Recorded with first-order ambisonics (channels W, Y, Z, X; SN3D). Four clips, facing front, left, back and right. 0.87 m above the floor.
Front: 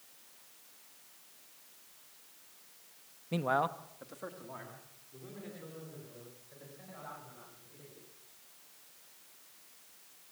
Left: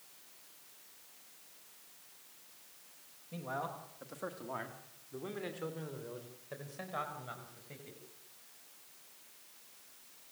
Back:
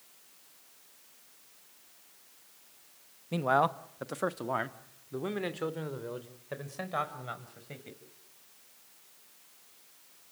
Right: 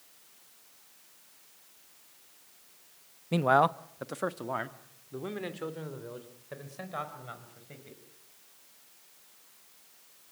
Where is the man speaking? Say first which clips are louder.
Right 16 dB, back 4 dB; 90° right, 0.9 m; by 8.0 s 175° right, 5 m.